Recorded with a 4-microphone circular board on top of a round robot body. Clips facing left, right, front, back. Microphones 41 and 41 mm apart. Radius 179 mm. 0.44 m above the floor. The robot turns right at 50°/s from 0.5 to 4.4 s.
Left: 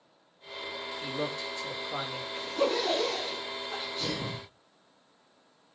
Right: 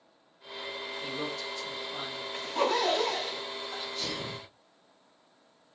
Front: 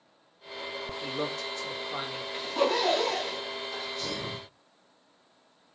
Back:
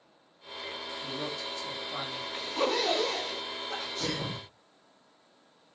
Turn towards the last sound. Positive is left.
turn(degrees=-170)